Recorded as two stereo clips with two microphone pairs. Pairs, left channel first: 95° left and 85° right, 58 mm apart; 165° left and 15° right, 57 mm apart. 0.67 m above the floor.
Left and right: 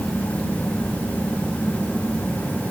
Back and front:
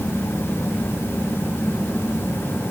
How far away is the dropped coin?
I don't hear a dropped coin.